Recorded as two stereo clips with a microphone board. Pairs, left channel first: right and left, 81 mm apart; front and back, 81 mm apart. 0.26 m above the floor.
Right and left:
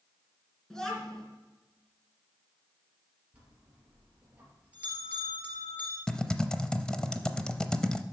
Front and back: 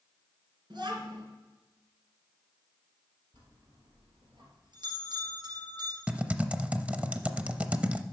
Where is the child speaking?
175° right, 3 m.